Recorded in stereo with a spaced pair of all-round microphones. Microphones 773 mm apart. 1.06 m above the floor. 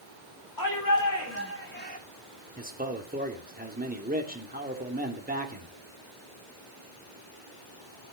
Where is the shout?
25° left (ahead or behind), 3.5 m; by 2.0 s 10° left (ahead or behind), 2.5 m.